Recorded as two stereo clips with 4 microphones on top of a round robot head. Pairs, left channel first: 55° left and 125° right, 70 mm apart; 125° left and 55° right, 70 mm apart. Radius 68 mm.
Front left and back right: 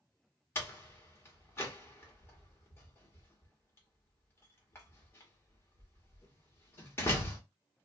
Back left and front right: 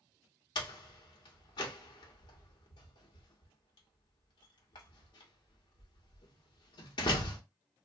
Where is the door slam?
115° left, 1.1 m.